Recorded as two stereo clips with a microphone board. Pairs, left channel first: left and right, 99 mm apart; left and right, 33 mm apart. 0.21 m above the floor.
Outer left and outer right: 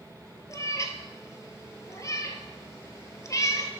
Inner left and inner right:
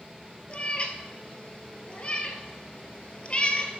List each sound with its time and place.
0.5 s a cat meowing: 35° left (ahead or behind), 0.9 m